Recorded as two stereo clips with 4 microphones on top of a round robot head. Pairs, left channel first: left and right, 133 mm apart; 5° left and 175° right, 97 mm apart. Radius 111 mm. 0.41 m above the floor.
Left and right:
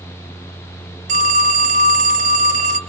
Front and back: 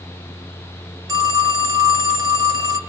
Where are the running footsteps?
No running footsteps in this recording.